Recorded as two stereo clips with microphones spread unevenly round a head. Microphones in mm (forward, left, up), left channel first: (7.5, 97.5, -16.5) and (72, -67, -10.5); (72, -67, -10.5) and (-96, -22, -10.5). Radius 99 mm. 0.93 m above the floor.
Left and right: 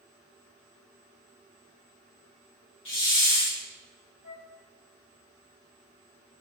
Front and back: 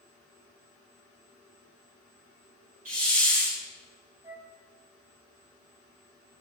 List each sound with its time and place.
2.9 s a hiss: 110° left, 5 m
4.2 s a flute: 95° left, 4 m